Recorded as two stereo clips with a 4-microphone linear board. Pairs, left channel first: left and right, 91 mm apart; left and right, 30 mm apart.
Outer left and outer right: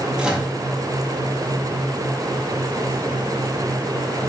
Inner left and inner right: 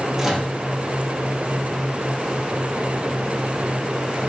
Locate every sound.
0.2 s a microwave: 10° right (ahead or behind), 0.6 m